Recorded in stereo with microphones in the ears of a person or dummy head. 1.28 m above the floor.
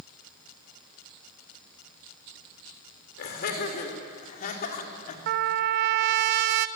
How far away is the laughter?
About 4 m.